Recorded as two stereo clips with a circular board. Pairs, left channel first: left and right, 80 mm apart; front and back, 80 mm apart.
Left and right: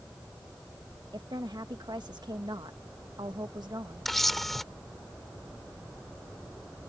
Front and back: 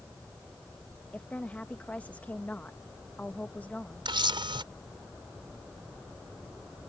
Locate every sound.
1.1 s a woman speaking: 70° right
4.0 s a camera shutter: 175° left